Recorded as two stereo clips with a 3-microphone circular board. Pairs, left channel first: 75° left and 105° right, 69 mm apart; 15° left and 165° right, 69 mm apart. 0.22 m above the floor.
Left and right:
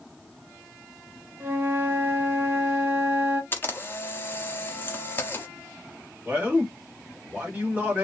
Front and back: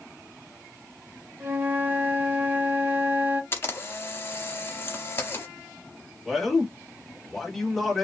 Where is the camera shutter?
40° left, 0.7 m.